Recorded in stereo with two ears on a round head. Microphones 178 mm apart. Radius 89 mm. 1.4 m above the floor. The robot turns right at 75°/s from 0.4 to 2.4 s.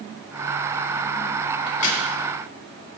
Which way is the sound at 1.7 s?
25° left (ahead or behind).